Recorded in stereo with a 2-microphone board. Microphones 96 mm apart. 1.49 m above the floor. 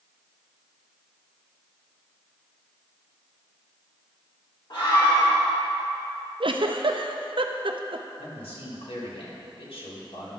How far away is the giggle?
About 0.5 m.